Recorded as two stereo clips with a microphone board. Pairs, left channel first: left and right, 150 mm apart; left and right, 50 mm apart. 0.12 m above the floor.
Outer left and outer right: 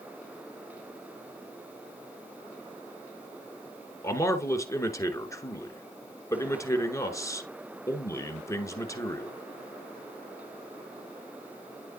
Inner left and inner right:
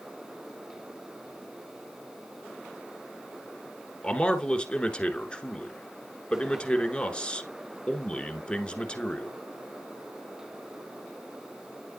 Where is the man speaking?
20° left (ahead or behind), 1.2 m.